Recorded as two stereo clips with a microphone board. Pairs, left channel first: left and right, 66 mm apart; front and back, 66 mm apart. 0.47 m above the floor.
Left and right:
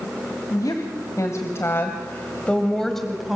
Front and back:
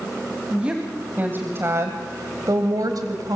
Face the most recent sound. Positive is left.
turn(degrees=-175)